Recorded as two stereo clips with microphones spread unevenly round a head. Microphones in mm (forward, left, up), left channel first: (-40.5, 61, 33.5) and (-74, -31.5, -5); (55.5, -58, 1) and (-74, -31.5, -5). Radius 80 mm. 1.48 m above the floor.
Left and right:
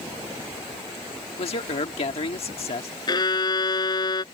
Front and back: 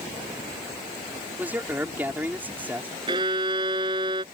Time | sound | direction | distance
1.4 | a man speaking | 90° left | ?
3.1 | a violin | 105° left | ?